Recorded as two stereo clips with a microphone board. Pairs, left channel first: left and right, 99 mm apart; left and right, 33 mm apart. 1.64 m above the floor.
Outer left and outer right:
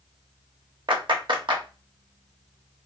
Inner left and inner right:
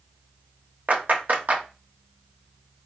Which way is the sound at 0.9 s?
55° right (ahead or behind).